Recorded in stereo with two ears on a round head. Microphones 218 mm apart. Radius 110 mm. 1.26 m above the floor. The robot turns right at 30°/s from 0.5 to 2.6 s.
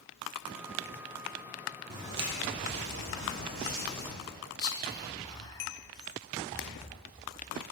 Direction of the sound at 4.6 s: 15° left (ahead or behind).